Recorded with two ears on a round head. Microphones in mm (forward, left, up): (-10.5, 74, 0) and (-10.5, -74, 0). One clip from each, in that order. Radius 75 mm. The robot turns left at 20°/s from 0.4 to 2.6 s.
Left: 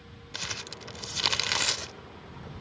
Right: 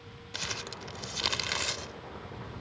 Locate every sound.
0.3 s crumpling: centre (ahead or behind); by 1.9 s 30° left (ahead or behind)